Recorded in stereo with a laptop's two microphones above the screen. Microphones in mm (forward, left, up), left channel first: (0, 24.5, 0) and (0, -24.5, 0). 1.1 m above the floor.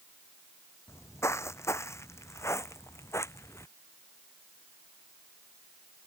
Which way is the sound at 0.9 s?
65° left (ahead or behind).